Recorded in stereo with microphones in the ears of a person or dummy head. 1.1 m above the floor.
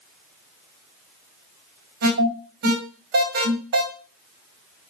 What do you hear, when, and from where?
2.0 s an alarm: 55° right (ahead or behind), 1.9 m